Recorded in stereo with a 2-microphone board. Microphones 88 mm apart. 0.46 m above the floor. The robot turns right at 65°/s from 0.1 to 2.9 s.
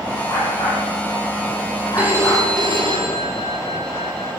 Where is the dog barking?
35° left (ahead or behind), 7 m; by 2.5 s 5° left (ahead or behind), 7 m.